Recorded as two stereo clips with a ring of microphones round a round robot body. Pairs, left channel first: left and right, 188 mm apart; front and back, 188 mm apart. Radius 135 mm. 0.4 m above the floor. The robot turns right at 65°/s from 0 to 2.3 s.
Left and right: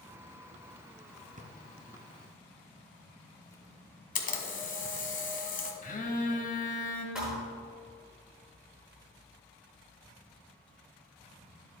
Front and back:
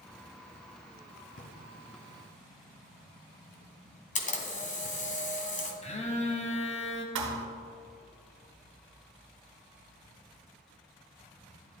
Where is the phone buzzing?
50° left, 1.5 m.